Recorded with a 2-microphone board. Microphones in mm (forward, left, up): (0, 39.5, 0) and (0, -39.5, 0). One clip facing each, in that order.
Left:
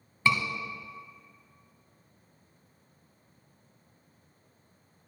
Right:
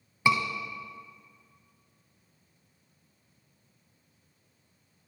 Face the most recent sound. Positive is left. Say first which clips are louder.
# right 2 dB
turn(degrees=-15)  # may be behind; listen again after turning